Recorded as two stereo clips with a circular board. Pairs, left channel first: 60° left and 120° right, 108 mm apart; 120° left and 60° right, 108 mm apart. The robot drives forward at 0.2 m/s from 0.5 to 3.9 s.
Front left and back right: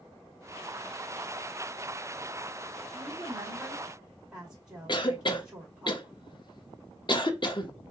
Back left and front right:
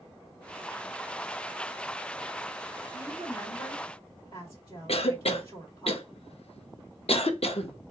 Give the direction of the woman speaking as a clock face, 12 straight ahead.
6 o'clock.